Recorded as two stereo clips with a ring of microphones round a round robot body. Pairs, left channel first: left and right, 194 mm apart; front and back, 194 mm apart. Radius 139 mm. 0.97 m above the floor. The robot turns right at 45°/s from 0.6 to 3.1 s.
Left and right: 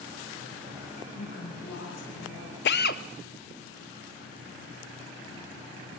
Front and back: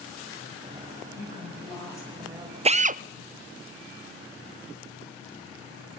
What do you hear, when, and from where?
1.2 s a woman speaking: 40° left, 5.5 m; by 2.5 s 100° left, 5.5 m
2.6 s a drill: 125° left, 0.5 m; by 3.0 s 140° left, 0.5 m